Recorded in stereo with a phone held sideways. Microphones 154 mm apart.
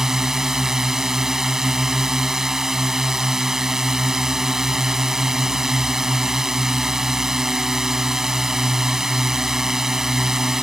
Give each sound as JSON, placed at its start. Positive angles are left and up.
{"t": 0.0, "sound": "a drone", "side_deg": -5}